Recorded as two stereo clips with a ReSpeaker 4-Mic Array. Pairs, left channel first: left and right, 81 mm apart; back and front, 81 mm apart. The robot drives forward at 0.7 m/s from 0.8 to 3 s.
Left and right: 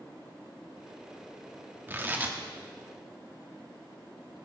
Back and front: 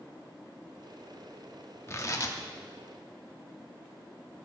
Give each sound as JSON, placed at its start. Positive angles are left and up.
{"t": 1.9, "sound": "tearing paper", "azimuth_deg": -140, "distance_m": 1.0}